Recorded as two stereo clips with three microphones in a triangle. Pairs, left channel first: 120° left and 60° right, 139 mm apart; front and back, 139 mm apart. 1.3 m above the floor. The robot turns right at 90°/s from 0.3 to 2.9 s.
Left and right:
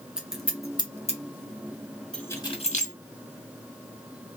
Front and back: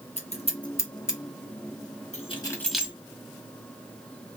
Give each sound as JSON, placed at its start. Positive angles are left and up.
{"t": 0.2, "sound": "scissors", "azimuth_deg": 25, "distance_m": 0.9}
{"t": 2.1, "sound": "keys jangling", "azimuth_deg": 35, "distance_m": 1.1}